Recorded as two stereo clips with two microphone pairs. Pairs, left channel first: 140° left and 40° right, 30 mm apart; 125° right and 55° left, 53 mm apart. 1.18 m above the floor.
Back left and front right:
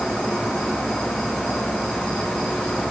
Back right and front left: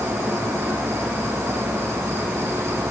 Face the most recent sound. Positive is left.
turn(degrees=90)